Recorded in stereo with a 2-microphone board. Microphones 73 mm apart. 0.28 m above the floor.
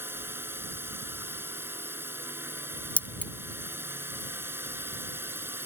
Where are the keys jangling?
20° left (ahead or behind).